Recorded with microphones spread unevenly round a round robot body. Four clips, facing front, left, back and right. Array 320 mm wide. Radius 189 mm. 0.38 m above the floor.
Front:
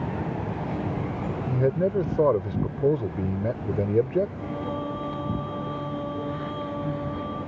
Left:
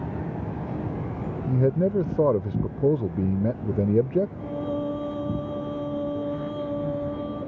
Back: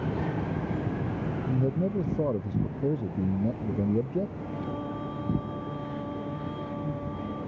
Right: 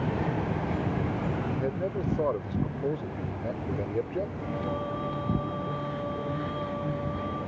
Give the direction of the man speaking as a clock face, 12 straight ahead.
10 o'clock.